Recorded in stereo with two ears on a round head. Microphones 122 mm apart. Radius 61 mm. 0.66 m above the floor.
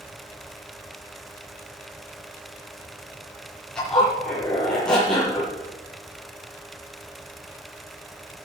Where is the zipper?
5° left (ahead or behind), 8 m.